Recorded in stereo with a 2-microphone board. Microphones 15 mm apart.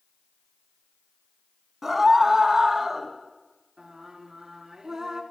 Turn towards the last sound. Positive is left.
turn(degrees=-35)  # may be behind; listen again after turning